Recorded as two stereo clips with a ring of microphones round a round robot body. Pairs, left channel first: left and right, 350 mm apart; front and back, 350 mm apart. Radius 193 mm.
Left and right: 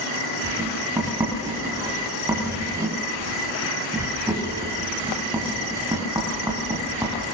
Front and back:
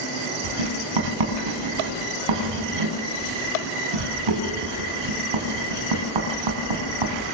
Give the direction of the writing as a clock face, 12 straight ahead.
6 o'clock.